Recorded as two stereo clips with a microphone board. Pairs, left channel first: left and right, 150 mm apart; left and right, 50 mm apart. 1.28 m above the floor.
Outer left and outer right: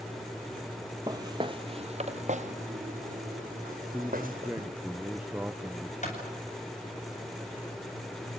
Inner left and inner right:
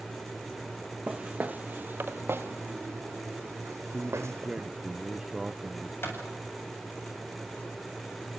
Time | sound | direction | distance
1.1 | footsteps | 20° right (ahead or behind) | 1.5 m
3.9 | a man speaking | 10° right (ahead or behind) | 0.8 m
6.0 | a clap | 50° left (ahead or behind) | 8 m